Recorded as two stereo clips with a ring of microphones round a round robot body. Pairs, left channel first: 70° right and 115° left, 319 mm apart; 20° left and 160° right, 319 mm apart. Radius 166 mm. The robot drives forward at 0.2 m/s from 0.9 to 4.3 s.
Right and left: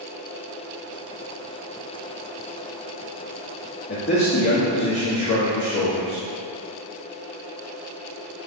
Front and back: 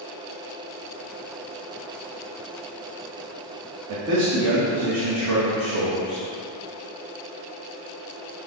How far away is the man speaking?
About 1.2 m.